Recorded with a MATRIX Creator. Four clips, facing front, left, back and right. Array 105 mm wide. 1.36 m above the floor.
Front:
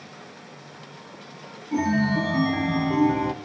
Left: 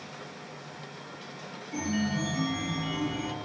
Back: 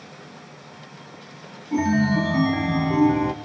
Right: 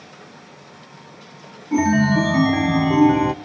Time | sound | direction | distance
1.7 | a chime | 90° right | 0.9 m